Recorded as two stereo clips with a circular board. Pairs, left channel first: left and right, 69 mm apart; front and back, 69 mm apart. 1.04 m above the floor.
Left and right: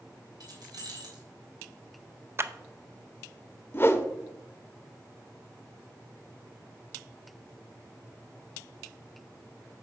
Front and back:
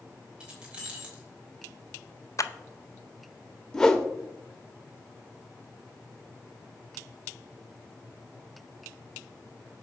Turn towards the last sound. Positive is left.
turn(degrees=75)